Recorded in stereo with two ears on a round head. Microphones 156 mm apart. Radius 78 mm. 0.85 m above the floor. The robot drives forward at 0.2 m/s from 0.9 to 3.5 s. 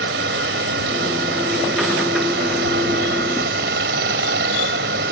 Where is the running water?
80° right; by 5.1 s 75° right (ahead or behind).